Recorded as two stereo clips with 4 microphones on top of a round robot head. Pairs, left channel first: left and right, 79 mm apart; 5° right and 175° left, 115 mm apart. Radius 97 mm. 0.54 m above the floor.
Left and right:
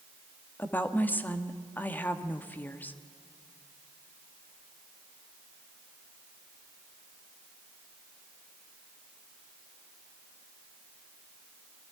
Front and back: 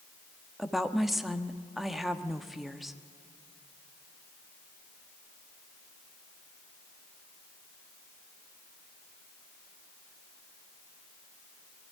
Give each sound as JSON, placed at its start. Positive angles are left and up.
{"t": 0.6, "sound": "a woman speaking", "azimuth_deg": 90, "distance_m": 1.2}